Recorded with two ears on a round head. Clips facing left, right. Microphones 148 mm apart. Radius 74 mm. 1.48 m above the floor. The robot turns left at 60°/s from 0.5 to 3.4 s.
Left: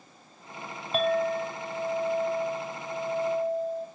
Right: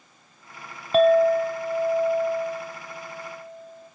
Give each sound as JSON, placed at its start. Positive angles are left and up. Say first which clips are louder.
{"t": 0.9, "sound": "a clink", "louder": "right 9 dB", "azimuth_deg": -85, "distance_m": 0.6}